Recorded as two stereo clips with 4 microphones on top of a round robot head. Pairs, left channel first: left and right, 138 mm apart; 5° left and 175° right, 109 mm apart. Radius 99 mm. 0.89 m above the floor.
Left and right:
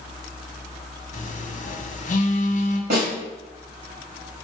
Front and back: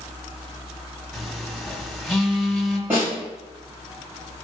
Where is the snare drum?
95° right, 3 m.